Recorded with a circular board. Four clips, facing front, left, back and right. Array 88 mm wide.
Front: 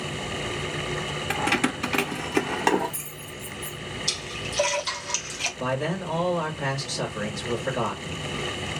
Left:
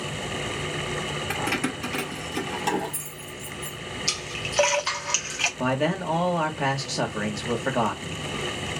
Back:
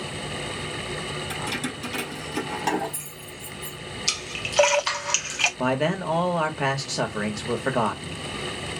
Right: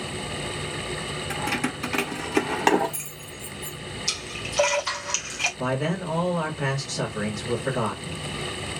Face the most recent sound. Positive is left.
turn(degrees=155)